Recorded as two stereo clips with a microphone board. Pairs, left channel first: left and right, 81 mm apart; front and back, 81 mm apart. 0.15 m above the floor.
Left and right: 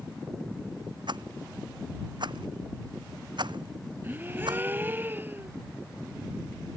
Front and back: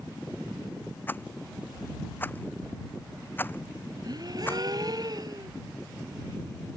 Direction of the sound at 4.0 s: 155° right.